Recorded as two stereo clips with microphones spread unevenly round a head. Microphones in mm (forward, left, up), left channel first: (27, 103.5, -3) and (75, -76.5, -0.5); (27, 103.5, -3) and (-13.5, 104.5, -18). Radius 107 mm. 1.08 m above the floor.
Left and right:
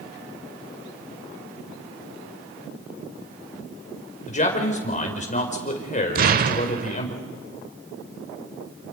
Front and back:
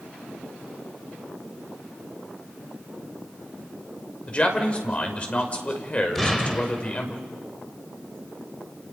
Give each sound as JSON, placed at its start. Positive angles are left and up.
{"t": 4.3, "sound": "a man speaking", "azimuth_deg": 55, "distance_m": 5.0}
{"t": 6.2, "sound": "an explosion", "azimuth_deg": -60, "distance_m": 1.1}